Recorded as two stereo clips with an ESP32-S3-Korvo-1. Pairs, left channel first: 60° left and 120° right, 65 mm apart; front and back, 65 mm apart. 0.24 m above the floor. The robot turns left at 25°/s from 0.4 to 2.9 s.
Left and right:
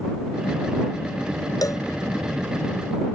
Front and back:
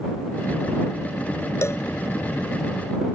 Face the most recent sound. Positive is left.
turn(degrees=15)